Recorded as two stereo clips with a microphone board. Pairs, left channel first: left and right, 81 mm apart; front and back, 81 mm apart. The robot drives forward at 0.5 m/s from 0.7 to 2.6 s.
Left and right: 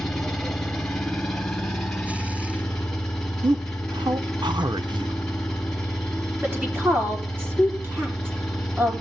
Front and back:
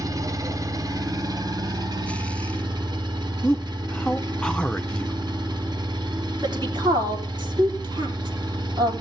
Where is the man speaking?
80° right, 0.6 m.